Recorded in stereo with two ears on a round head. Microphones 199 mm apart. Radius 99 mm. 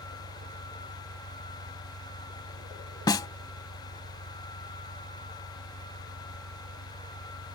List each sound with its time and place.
0.0 s an engine running: 85° right
3.1 s a snare drum: 20° left (ahead or behind)